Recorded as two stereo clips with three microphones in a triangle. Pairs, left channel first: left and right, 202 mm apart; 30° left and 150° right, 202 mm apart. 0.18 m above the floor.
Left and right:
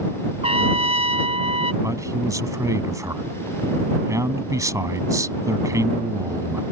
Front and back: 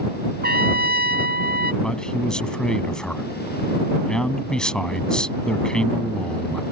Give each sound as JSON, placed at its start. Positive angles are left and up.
{"t": 0.4, "sound": "a trumpet", "azimuth_deg": -140}
{"t": 1.8, "sound": "a man speaking", "azimuth_deg": -50}